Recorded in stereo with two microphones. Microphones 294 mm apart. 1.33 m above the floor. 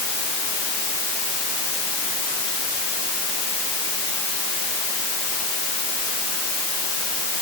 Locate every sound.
Only background noise.